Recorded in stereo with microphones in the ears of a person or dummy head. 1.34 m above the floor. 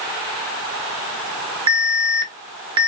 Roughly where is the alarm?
Right.